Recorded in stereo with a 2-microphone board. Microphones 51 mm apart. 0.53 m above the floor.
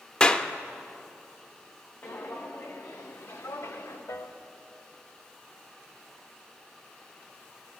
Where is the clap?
20° left (ahead or behind), 0.5 m.